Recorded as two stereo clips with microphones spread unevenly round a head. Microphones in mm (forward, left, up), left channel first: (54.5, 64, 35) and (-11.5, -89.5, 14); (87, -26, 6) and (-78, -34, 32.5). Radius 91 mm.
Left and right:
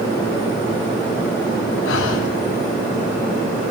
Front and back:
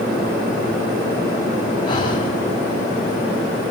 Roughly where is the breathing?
Ahead left.